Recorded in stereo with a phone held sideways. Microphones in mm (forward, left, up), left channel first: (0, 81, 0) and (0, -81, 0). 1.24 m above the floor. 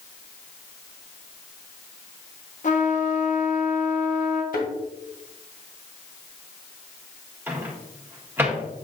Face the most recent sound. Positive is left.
turn(degrees=-15)  # may be behind; listen again after turning